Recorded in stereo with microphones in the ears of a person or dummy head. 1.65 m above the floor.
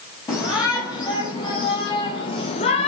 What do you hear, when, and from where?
0.3 s a shout: 15° left (ahead or behind), 3.5 m; by 2.9 s 30° left (ahead or behind), 1.1 m